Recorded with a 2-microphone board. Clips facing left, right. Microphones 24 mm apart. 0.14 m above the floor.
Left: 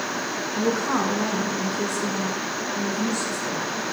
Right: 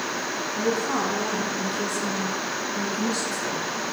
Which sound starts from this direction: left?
A woman speaking, at 0.5 s.